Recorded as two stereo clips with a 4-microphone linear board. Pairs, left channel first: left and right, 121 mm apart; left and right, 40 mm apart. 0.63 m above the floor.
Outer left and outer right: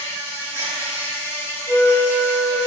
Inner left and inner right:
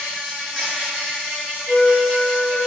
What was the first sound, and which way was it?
An insect, 20° left (ahead or behind).